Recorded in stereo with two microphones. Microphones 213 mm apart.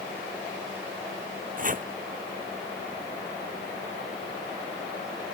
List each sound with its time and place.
1.6 s chopping: 40° right (ahead or behind)